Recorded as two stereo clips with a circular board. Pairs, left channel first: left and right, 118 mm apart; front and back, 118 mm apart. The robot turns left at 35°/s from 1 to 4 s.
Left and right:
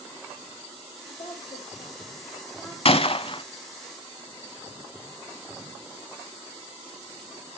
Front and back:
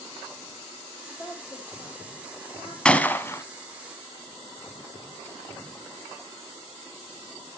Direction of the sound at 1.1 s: 65° left.